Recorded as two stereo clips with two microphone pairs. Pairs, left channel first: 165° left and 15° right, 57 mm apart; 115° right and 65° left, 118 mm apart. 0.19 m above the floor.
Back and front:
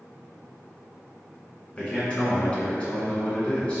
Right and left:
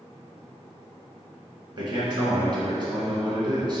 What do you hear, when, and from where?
1.8 s a man speaking: 100° left, 1.7 m